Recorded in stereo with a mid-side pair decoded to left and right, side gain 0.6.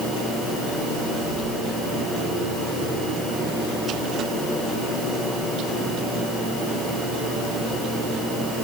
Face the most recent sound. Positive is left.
No sound to turn to.